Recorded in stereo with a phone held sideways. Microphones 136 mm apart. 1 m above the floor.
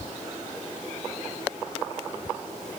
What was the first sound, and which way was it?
Only background noise.